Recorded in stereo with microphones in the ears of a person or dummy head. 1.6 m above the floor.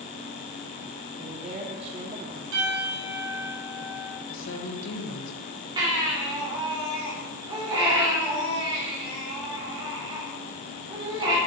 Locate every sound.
1.2 s a woman speaking: 35° right (ahead or behind), 0.8 m
2.5 s a piano: 65° right (ahead or behind), 3.5 m
4.3 s a woman speaking: 70° left (ahead or behind), 1.8 m
5.8 s a baby crying: 20° right (ahead or behind), 3 m